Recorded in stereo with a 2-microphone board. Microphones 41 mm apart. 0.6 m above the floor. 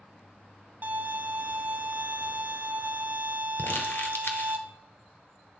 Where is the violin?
45° right (ahead or behind), 0.6 m.